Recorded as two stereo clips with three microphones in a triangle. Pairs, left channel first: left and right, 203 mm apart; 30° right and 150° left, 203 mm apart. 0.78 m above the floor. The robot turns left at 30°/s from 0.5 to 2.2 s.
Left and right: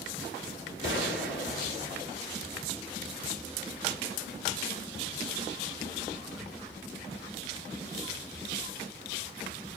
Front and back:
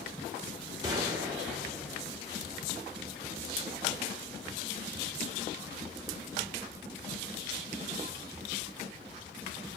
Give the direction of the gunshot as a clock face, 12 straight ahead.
9 o'clock.